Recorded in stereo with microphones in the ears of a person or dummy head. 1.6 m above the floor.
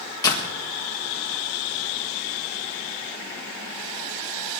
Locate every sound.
0.2 s a door slam: 20° left (ahead or behind), 1.4 m